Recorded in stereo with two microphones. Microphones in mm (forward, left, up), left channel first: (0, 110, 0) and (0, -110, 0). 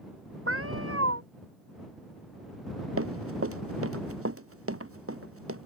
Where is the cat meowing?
80° right.